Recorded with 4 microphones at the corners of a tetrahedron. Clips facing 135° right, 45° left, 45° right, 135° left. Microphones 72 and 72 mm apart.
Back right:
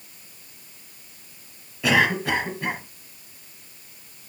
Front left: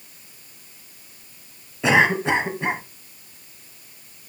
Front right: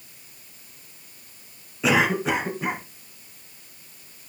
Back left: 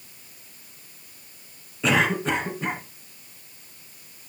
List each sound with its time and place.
1.8 s a cough: 30° left, 1.1 m